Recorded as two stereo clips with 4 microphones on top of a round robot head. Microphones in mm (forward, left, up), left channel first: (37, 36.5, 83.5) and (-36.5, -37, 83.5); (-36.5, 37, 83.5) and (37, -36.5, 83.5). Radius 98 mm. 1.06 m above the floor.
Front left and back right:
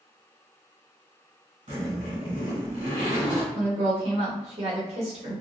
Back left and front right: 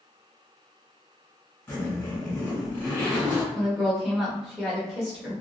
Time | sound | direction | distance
1.7 | a zipper | 145° right | 1.7 m
3.5 | a woman speaking | 135° right | 1.4 m